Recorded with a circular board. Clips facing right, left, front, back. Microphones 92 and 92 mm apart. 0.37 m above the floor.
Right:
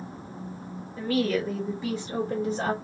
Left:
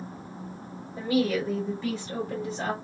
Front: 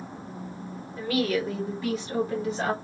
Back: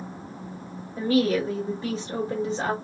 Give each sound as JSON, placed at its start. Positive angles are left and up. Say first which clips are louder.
{"t": 1.0, "sound": "a woman speaking", "louder": "even, back 4 dB", "azimuth_deg": 140, "distance_m": 1.2}